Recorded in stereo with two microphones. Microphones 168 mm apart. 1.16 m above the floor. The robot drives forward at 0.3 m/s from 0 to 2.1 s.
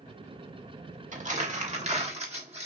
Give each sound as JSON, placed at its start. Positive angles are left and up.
{"t": 1.1, "sound": "crumpling", "side_deg": -45, "distance_m": 1.2}